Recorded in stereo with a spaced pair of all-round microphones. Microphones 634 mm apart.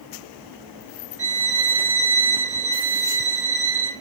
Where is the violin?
80° right, 4.5 m.